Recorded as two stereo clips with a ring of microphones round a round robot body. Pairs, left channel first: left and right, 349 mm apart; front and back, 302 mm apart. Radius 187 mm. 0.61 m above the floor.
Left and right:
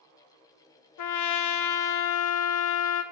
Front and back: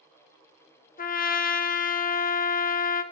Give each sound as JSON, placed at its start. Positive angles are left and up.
{"t": 1.0, "sound": "a trumpet", "azimuth_deg": 60, "distance_m": 0.7}